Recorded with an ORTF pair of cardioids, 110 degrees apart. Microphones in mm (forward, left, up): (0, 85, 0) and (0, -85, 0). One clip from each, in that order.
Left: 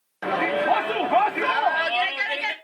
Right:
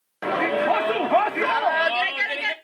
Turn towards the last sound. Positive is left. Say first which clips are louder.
# right 1 dB
turn(degrees=-15)